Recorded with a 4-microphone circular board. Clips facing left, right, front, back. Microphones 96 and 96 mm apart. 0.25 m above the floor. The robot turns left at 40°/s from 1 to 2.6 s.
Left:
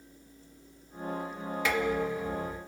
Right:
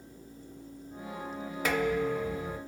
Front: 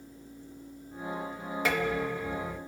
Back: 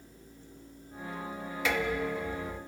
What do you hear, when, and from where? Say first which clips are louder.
1.6 s dishes clattering: right 1 dB, front 1 dB; 45° right, 3 m; by 2.6 s 85° right, 3 m